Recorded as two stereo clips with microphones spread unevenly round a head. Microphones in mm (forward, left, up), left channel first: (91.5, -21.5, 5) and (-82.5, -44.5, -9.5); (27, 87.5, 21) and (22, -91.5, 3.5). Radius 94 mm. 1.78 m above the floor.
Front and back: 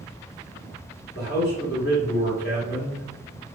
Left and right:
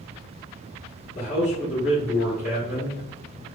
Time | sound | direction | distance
1.1 | a man speaking | 40° left | 1.8 m